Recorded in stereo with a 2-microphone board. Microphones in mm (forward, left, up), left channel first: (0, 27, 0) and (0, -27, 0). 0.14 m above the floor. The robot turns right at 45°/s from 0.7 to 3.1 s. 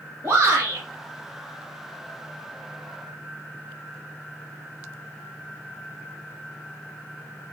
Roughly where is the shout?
Right.